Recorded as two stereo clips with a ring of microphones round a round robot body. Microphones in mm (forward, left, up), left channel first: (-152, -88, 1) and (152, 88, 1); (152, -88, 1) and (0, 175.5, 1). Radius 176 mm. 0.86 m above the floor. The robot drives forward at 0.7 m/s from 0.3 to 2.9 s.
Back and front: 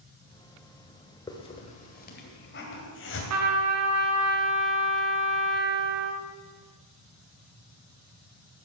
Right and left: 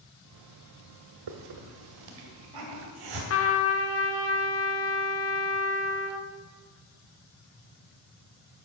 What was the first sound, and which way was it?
A hiss, 130° left.